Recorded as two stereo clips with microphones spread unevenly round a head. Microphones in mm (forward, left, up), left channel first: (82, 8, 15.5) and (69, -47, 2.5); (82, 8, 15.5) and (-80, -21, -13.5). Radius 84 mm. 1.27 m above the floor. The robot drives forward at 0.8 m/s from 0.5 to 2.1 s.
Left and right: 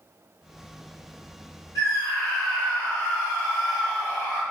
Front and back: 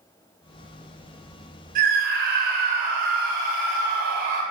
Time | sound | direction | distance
1.8 | a scream | 150° left | 2.5 m